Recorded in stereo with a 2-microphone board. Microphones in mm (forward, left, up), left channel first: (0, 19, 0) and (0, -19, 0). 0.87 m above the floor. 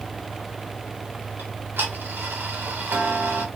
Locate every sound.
1.4 s ticking: 80° right, 1.2 m